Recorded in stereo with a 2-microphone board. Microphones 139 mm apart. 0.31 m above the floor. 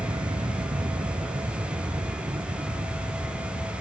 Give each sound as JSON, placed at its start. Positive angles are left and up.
{"t": 0.0, "sound": "an aircraft", "side_deg": -35}